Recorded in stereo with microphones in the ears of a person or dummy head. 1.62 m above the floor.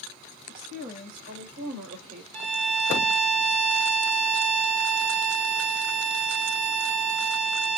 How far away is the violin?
About 1.0 m.